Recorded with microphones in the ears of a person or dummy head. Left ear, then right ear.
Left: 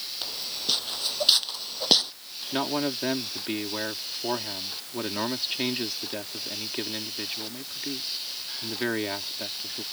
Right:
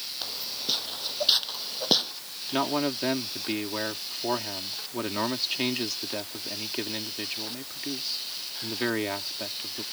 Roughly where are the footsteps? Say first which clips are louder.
Left 2 dB; centre.